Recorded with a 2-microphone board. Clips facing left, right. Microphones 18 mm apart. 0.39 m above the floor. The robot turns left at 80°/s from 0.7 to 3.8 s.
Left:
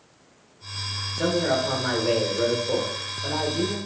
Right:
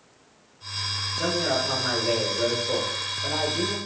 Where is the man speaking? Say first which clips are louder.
Left 3 dB; 10° left (ahead or behind), 0.8 m; by 3.8 s 15° right (ahead or behind), 0.8 m.